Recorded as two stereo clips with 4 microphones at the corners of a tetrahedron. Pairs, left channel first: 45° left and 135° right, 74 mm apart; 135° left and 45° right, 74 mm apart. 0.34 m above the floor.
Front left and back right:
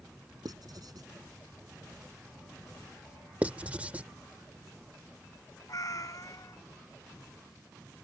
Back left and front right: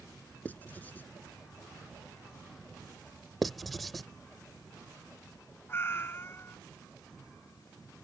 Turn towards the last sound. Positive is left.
turn(degrees=80)